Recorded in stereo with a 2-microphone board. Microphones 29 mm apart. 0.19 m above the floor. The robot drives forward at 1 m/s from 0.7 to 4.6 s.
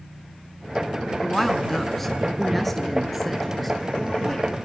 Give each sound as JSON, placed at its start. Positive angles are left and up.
{"t": 1.2, "sound": "a woman speaking", "side_deg": 10, "distance_m": 1.7}